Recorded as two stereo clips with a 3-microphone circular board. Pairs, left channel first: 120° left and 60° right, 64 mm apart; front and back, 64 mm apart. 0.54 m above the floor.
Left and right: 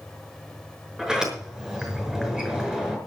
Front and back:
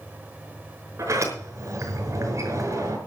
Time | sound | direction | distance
1.0 | a sliding door | 140° right | 5.5 m